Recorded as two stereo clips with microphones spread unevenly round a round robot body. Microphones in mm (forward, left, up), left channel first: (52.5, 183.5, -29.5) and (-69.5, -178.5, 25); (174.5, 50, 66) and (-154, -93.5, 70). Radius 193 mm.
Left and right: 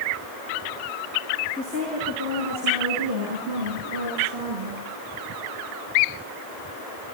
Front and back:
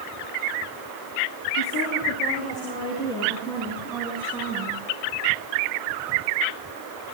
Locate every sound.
1.6 s a woman speaking: 30° right, 5.5 m; by 4.8 s 75° right, 6.5 m